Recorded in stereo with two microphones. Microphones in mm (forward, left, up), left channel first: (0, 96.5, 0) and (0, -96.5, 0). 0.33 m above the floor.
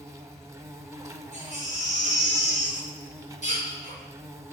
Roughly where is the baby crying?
Left.